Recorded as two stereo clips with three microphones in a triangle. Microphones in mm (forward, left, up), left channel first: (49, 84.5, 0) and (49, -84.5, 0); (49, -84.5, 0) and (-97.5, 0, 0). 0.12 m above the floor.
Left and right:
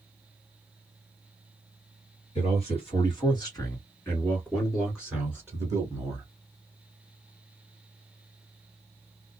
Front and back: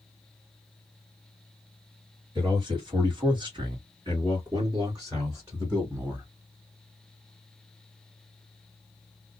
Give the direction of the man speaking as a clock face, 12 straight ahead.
8 o'clock.